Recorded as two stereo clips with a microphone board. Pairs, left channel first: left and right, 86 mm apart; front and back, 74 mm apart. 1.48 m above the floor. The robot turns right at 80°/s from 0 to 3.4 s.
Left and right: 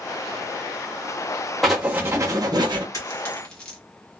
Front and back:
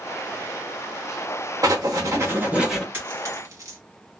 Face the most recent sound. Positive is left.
turn(degrees=165)